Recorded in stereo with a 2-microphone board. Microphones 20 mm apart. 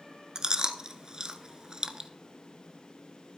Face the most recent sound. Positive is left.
turn(degrees=-40)  # may be behind; listen again after turning